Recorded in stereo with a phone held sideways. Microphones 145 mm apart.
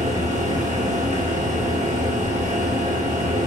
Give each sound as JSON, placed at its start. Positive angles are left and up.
{"t": 0.0, "sound": "a fan", "side_deg": -55, "distance_m": 0.7}